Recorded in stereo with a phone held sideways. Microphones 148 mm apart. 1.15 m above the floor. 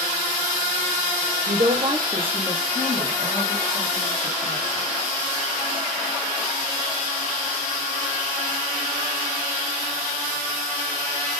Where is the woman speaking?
60° right (ahead or behind), 0.7 m; by 4.9 s 40° left (ahead or behind), 2 m.